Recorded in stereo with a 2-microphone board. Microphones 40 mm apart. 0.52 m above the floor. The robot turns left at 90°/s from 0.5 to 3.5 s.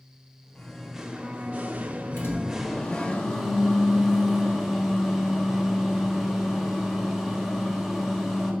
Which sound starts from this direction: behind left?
A microwave, at 2.2 s.